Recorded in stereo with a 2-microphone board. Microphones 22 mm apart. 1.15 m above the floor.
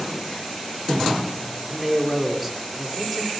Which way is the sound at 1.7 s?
5° right (ahead or behind).